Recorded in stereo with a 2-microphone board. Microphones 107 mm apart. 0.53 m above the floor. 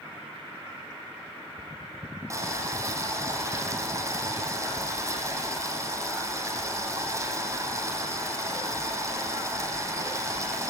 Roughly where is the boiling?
Right.